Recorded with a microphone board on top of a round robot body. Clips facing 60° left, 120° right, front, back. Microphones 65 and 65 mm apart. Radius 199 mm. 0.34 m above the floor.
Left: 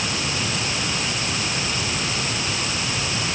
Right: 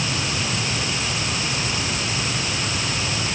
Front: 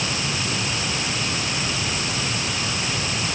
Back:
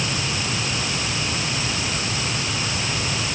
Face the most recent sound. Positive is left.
No sound to turn to.